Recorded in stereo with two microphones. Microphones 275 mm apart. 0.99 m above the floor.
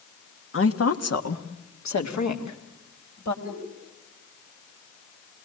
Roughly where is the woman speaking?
Left.